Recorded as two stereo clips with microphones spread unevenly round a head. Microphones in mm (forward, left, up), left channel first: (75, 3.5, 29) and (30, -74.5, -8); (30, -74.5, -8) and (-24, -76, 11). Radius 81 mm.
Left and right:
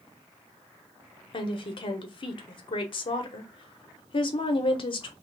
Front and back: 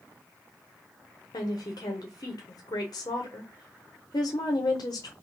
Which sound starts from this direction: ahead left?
A woman speaking, at 1.3 s.